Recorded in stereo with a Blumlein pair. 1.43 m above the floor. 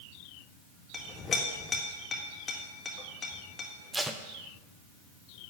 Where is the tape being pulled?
10° right, 0.6 m.